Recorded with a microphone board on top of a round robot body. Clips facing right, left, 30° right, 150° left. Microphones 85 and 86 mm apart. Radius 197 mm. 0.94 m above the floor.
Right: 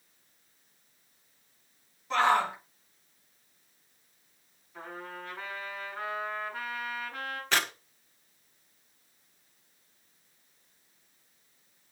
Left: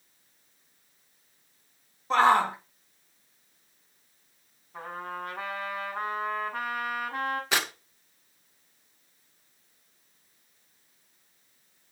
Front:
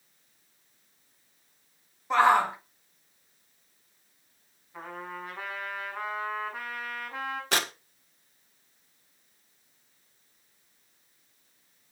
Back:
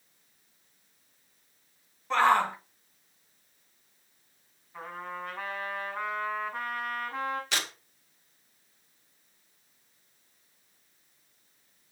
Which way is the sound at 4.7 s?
55° left.